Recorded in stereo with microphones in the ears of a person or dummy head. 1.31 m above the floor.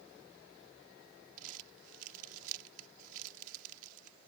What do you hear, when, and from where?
1.4 s crumpling: 50° right (ahead or behind)